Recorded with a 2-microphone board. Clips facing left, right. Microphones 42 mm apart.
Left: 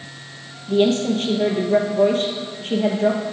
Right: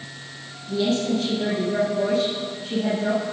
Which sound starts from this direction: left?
A woman speaking, at 0.7 s.